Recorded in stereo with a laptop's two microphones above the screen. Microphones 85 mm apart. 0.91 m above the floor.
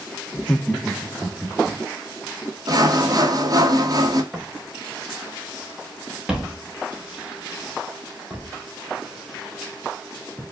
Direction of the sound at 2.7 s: 45° right (ahead or behind).